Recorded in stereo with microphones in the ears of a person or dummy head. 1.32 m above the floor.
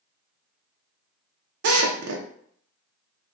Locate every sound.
1.6 s a drill: 65° right (ahead or behind), 0.6 m